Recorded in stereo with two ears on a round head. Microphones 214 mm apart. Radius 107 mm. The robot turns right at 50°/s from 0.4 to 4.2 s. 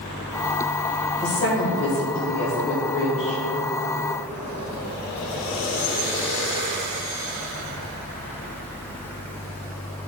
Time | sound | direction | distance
1.2 | a woman speaking | 35° left | 1.8 m